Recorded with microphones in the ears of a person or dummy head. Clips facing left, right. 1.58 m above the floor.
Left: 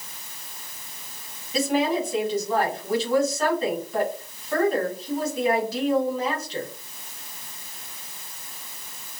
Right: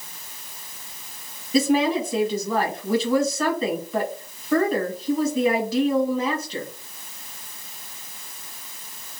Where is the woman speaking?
80° right, 2.0 m.